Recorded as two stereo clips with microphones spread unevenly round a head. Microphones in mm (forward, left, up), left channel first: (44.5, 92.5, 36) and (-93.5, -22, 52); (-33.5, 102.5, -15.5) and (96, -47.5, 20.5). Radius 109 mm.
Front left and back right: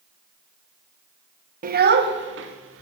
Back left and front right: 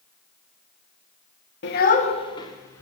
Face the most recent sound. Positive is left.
turn(degrees=-150)